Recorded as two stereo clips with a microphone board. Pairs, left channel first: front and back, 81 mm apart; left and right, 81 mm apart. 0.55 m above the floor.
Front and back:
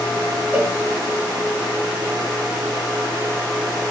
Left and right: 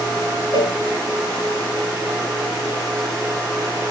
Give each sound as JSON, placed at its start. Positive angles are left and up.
{"t": 0.5, "sound": "a cowbell", "azimuth_deg": 110, "distance_m": 4.0}